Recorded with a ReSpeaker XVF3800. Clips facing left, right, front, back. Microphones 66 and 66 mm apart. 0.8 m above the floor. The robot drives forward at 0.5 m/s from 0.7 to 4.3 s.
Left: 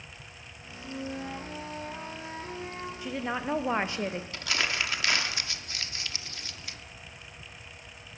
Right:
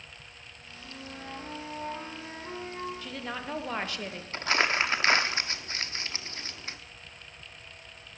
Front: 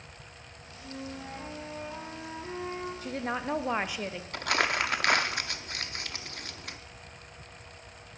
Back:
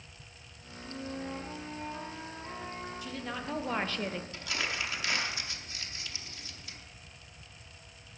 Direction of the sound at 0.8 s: 10° left.